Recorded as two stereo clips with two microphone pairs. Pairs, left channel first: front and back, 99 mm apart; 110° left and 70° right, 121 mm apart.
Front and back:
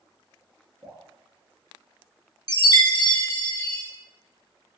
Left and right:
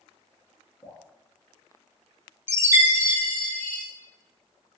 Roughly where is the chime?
Ahead.